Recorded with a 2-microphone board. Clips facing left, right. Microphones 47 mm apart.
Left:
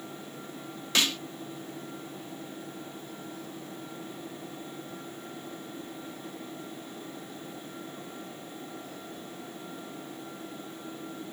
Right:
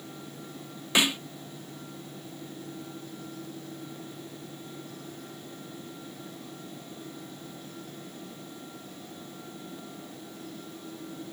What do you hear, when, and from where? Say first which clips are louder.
0.9 s a snare drum: right 3 dB; 20° right (ahead or behind)